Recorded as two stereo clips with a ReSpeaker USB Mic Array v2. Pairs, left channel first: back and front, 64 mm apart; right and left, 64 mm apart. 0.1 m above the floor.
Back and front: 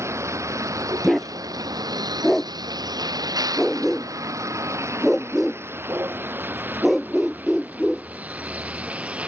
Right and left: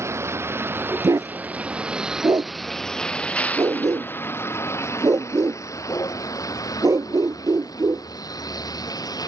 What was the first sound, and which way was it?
A vehicle, 45° left.